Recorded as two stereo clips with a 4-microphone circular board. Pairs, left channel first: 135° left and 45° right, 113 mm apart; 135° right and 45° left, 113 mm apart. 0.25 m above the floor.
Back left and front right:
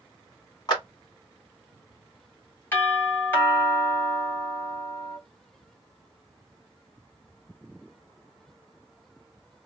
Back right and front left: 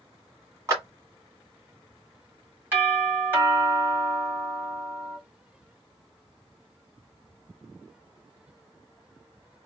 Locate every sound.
0.7 s a clap: 100° left, 1.7 m
2.7 s a doorbell: 90° left, 1.8 m